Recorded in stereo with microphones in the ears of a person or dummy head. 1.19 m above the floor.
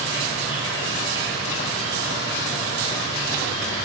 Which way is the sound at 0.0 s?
20° left (ahead or behind).